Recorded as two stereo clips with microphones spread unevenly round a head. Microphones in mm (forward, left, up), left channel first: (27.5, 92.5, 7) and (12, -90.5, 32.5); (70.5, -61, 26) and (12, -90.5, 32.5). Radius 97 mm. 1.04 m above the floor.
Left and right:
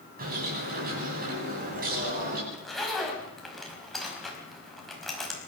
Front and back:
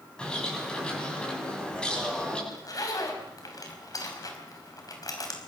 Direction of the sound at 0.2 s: 50° right.